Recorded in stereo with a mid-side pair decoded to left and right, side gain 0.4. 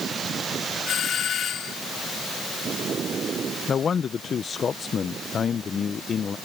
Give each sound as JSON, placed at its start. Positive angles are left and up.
{"t": 0.9, "sound": "a doorbell", "azimuth_deg": 65}
{"t": 3.7, "sound": "a man speaking", "azimuth_deg": 50}